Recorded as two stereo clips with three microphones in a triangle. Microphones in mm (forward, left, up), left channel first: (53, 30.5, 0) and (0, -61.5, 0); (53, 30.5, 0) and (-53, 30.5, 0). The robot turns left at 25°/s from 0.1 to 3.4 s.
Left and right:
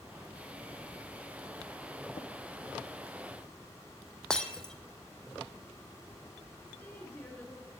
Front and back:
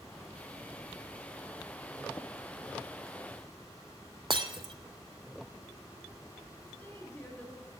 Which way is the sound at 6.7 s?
25° left.